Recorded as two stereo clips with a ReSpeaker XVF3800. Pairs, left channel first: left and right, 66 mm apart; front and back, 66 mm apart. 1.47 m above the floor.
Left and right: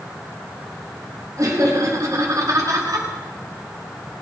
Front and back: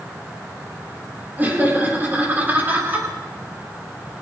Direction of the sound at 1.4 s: 120° right.